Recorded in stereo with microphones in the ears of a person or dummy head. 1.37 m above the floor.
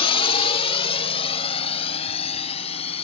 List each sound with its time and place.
0.0 s a drone: 25° left (ahead or behind); by 3.0 s 30° left (ahead or behind)